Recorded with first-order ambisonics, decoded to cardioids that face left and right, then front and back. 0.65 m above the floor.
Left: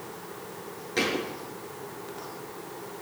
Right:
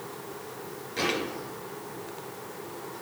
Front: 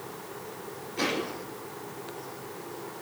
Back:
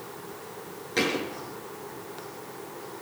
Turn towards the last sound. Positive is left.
turn(degrees=155)